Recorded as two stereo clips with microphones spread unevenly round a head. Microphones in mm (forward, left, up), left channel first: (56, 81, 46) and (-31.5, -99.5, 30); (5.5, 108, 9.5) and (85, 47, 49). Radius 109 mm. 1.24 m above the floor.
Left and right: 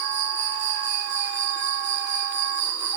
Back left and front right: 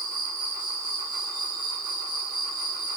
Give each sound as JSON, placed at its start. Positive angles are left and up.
{"t": 0.0, "sound": "an insect", "azimuth_deg": -105, "distance_m": 2.5}